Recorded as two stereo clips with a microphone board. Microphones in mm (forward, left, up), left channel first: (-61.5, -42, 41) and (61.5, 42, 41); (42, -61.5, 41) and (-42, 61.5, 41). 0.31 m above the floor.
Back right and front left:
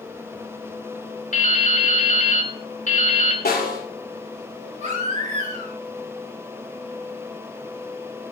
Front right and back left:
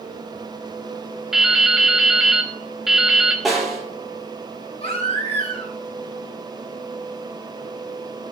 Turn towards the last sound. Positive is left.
turn(degrees=-5)